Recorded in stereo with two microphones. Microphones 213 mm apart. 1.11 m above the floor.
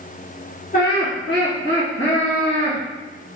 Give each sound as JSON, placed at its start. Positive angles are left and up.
{"t": 0.7, "sound": "laughter", "side_deg": 50, "distance_m": 0.7}